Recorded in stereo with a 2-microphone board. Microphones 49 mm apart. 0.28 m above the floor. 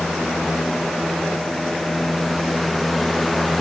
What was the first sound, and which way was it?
Only background noise.